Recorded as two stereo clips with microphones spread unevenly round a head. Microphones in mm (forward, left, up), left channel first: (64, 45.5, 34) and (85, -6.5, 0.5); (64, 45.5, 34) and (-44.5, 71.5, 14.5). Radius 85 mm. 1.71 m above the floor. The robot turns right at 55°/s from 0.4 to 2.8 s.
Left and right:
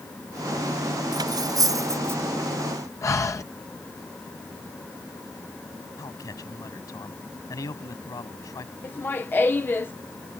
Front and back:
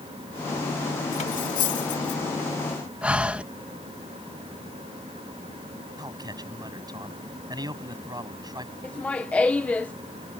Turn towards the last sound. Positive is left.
turn(degrees=65)